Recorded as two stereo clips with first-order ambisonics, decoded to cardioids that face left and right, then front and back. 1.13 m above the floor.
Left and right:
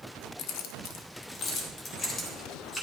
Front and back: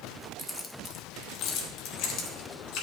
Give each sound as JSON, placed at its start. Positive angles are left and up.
{"t": 0.4, "sound": "keys jangling", "azimuth_deg": 90, "distance_m": 0.6}